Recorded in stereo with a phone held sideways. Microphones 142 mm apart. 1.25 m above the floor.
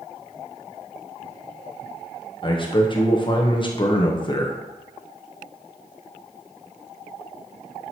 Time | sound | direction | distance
2.4 | a man speaking | 35° left (ahead or behind) | 0.7 m